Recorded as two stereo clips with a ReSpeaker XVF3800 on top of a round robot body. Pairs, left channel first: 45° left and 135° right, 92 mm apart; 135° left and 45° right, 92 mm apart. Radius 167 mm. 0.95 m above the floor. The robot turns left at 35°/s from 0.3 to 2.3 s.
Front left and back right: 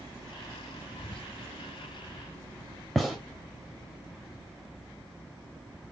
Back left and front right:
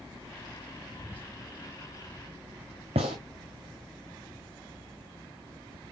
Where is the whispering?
65° left, 0.9 m; by 1.4 s 50° left, 0.9 m.